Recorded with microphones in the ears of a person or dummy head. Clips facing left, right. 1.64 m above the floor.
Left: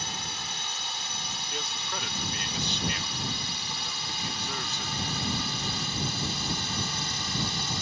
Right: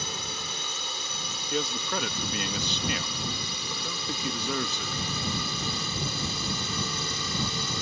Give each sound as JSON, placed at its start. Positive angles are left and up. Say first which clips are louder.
{"t": 0.0, "sound": "a drone", "louder": "right 2 dB", "side_deg": -75}
{"t": 1.5, "sound": "a man speaking", "louder": "right 9 dB", "side_deg": -60}